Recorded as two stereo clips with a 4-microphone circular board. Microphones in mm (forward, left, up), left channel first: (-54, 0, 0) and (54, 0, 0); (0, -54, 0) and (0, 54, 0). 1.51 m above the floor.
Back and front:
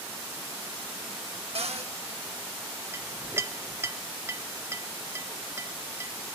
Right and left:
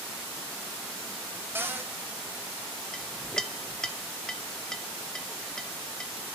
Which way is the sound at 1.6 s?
20° left.